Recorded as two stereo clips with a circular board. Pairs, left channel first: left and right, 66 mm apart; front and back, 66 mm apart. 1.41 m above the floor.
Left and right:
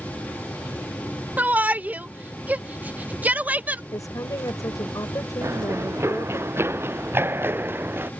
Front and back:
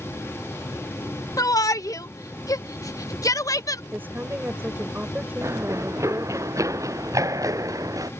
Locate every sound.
1.4 s a shout: 25° right
3.9 s a woman speaking: 120° left
5.4 s running footsteps: 140° right; by 8.1 s 150° right